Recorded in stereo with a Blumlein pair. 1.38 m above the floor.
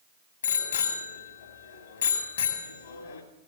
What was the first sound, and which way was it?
A bicycle bell, 65° left.